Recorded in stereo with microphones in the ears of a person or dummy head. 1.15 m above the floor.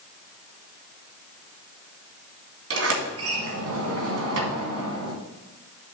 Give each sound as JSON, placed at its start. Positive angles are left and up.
{"t": 2.7, "sound": "a sliding door", "side_deg": -75, "distance_m": 1.9}